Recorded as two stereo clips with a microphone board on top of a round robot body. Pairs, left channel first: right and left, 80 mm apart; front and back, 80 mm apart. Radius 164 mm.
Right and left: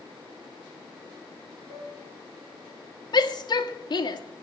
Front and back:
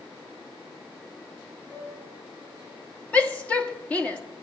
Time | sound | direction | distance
1.7 | a piano | 60° right | 9 m
3.1 | a shout | 75° right | 1.4 m